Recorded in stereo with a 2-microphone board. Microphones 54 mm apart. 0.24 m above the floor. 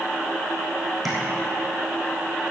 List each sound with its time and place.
1.1 s tapping: centre (ahead or behind), 4 m